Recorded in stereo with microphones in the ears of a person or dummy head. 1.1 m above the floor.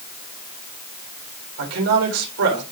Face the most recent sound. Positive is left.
turn(degrees=-85)